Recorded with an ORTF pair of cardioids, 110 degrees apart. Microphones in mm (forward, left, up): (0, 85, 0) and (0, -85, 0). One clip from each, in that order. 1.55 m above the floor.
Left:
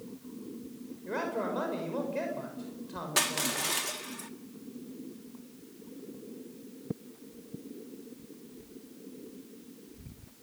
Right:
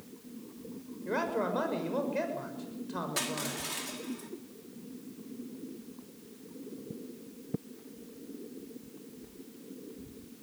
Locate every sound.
1.1 s a man speaking: 15° right, 6 m
3.2 s crushing: 45° left, 2 m